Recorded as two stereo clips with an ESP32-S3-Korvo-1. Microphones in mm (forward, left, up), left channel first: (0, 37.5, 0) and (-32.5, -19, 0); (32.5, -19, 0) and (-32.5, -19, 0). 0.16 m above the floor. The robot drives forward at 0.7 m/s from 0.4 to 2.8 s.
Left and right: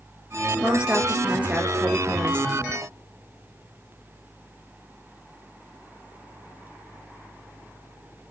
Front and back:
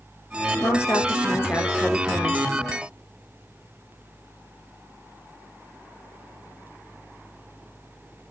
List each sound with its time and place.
0.6 s a woman speaking: 45° right, 3 m; by 2.5 s 70° right, 2.5 m